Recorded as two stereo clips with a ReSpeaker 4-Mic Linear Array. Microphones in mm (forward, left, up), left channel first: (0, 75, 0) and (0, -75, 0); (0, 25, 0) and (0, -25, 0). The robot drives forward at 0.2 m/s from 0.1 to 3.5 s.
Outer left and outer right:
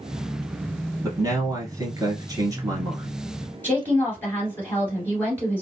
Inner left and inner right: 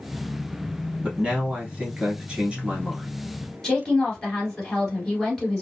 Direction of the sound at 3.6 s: 10° left (ahead or behind).